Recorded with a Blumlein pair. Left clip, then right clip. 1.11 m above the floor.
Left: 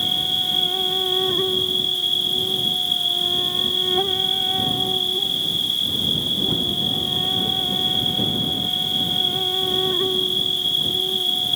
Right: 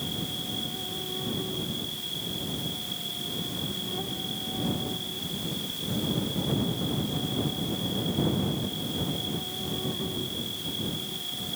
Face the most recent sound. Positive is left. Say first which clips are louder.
# left 13 dB
turn(degrees=55)